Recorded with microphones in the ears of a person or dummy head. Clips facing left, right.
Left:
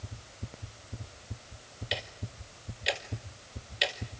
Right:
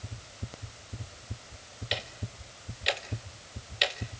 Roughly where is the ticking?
Centre.